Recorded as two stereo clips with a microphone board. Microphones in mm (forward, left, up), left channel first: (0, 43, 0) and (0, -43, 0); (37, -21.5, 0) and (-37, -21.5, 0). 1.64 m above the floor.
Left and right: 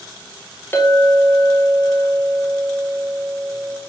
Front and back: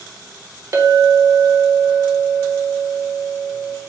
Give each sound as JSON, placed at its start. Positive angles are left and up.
{"t": 0.7, "sound": "a clink", "azimuth_deg": 150, "distance_m": 0.9}